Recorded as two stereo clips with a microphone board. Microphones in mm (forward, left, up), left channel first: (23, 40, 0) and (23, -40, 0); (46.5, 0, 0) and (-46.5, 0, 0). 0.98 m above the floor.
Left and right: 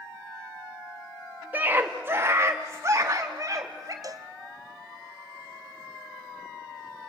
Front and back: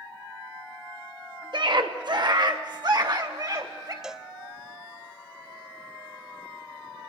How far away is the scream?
About 1.7 m.